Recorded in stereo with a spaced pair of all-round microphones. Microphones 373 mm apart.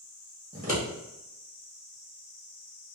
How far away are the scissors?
About 1.6 m.